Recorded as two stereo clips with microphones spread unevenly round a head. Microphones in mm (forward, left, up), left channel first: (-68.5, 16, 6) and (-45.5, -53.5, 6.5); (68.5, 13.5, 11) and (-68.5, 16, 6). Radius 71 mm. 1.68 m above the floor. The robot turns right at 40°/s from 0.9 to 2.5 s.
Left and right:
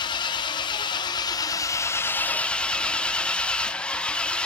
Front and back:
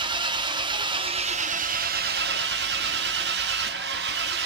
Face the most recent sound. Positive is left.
turn(degrees=-175)